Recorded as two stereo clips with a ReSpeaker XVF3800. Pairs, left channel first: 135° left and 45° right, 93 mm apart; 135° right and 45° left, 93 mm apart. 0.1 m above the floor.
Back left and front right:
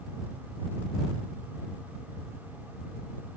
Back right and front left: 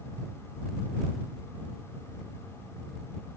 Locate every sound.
Only background noise.